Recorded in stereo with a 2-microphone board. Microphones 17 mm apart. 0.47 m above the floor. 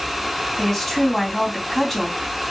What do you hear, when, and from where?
0.6 s a woman speaking: 15° left (ahead or behind), 3.5 m